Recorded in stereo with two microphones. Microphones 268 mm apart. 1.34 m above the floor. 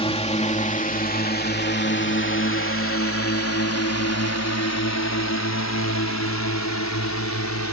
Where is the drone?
20° left (ahead or behind); by 7.7 s 85° left.